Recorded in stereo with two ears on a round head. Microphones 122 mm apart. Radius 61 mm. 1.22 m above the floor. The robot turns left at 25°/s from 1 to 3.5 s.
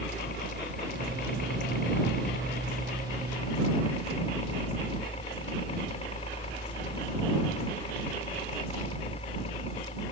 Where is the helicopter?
105° left; by 10.1 s 45° left.